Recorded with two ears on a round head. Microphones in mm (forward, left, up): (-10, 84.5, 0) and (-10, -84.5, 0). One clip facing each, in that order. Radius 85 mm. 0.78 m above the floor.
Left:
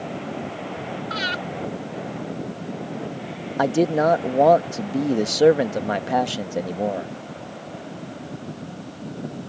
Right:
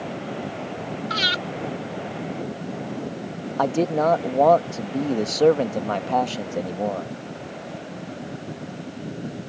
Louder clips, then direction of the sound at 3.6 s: Left 2 dB; 10° left (ahead or behind).